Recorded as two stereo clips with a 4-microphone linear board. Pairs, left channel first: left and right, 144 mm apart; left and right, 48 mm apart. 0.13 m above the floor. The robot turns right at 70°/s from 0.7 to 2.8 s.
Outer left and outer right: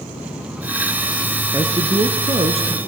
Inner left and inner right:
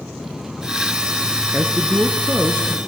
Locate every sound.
1.5 s a man speaking: 145° right, 1.5 m; by 2.8 s 60° right, 1.5 m